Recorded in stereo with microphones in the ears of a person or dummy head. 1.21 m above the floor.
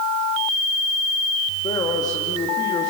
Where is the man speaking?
25° left (ahead or behind), 1.9 m.